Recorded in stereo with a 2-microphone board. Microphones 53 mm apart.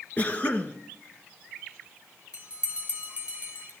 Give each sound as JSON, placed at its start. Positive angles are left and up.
{"t": 0.2, "sound": "a cough", "side_deg": 30, "distance_m": 1.7}
{"t": 2.3, "sound": "a bell", "side_deg": -20, "distance_m": 3.5}